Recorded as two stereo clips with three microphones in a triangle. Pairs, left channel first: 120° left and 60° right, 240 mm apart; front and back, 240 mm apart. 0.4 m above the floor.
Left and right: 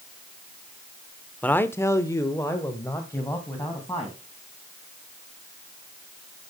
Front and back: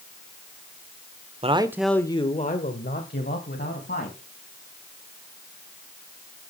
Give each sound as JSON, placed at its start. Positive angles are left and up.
{"t": 1.4, "sound": "a man speaking", "azimuth_deg": -165, "distance_m": 0.8}